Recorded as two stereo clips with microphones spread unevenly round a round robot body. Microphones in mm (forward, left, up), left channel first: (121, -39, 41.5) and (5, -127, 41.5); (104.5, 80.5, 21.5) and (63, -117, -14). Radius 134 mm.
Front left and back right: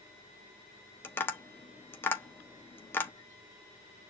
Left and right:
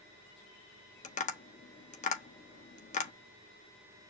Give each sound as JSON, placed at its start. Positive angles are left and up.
{"t": 1.0, "sound": "tapping", "azimuth_deg": 95, "distance_m": 0.9}